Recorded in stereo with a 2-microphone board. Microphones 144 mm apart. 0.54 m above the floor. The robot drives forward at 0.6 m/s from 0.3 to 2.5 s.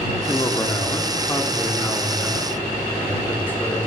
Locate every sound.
0.1 s a man speaking: 30° left (ahead or behind), 0.8 m; by 3.9 s 15° left (ahead or behind), 1.6 m